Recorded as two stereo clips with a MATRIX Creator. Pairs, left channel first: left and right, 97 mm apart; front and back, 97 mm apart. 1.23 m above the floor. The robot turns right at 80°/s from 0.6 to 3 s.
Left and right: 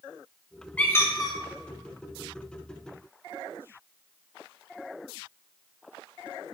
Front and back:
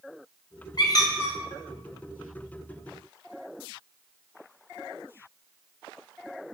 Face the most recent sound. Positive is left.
turn(degrees=-165)